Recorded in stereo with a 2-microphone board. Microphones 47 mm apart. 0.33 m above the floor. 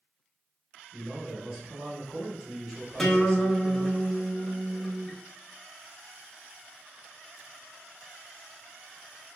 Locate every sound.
0.9 s a man speaking: 15° right (ahead or behind), 1.0 m
3.0 s a guitar: 10° left (ahead or behind), 0.7 m